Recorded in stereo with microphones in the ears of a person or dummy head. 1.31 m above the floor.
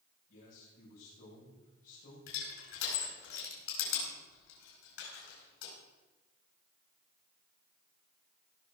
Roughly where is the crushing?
Left.